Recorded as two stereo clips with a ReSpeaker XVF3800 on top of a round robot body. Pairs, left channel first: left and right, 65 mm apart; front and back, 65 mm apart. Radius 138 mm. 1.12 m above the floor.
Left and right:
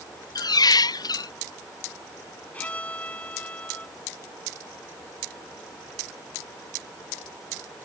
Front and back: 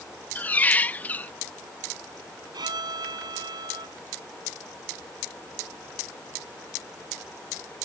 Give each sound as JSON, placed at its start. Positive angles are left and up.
{"t": 0.3, "sound": "a squeak", "azimuth_deg": 70}
{"t": 2.5, "sound": "a violin", "azimuth_deg": 160}